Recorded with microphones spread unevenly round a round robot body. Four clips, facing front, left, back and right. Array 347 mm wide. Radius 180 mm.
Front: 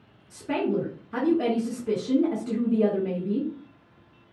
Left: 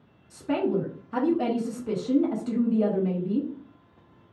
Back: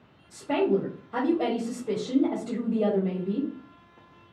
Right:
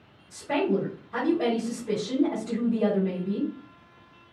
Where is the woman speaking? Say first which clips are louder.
Even, back 2 dB; 50° left, 1.2 m.